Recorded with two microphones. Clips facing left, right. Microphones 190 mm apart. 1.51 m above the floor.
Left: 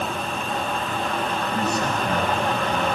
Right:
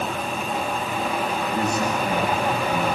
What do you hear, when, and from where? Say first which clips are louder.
1.5 s a man speaking: right 1 dB; 45° left (ahead or behind), 10 m; by 2.9 s 50° left (ahead or behind), 9.5 m